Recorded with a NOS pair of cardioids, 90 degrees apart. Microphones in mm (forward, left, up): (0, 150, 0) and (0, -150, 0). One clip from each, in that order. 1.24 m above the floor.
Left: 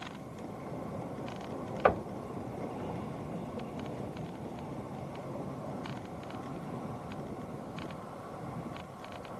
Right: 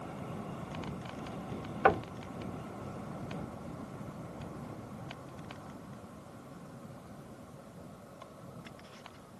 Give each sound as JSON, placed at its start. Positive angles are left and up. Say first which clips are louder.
{"t": 1.9, "sound": "knocking", "louder": "right 1 dB", "azimuth_deg": 0, "distance_m": 0.6}